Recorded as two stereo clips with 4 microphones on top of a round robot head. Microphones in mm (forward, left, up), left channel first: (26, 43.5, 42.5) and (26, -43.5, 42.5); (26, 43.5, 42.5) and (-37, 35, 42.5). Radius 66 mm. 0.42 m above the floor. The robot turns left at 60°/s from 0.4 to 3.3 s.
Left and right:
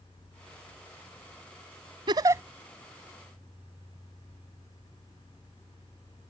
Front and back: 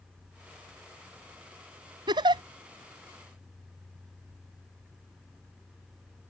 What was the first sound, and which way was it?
A giggle, 140° right.